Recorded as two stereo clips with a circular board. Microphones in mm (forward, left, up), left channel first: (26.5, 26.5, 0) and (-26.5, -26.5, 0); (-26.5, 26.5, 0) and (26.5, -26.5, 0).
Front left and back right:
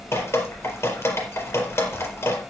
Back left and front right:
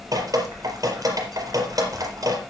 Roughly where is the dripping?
Ahead.